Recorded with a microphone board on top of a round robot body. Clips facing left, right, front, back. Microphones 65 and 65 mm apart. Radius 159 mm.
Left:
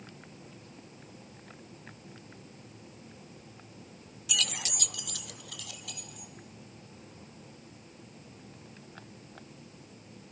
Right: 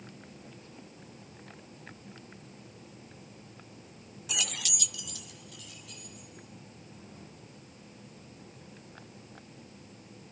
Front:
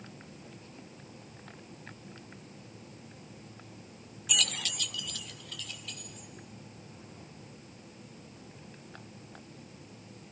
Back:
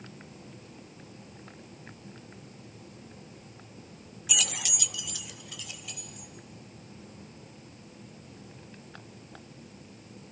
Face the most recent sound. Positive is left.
turn(degrees=100)